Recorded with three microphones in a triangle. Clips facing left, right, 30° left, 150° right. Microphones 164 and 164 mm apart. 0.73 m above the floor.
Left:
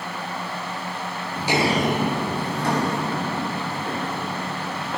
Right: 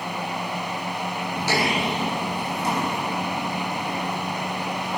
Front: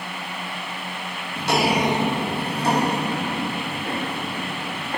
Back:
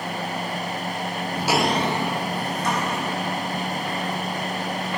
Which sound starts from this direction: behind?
Footsteps, at 1.4 s.